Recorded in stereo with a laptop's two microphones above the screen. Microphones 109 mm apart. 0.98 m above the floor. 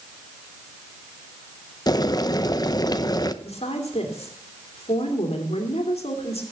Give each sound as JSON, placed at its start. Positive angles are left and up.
{"t": 1.9, "sound": "boiling", "side_deg": 35, "distance_m": 0.8}
{"t": 3.4, "sound": "a woman speaking", "side_deg": 65, "distance_m": 2.5}